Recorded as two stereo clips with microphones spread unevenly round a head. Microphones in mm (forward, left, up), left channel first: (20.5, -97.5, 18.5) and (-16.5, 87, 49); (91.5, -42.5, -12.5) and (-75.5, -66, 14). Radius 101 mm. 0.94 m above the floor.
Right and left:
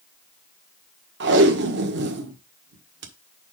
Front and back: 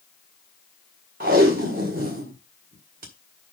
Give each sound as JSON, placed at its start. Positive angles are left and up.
{"t": 1.2, "sound": "tape being pulled", "azimuth_deg": 135, "distance_m": 1.5}